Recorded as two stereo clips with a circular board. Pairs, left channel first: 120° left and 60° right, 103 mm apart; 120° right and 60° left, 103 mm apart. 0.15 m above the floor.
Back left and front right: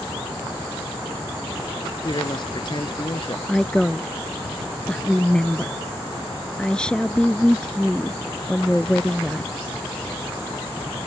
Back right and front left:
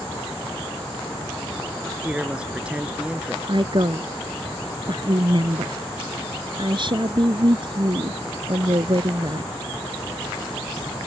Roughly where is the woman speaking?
Ahead left.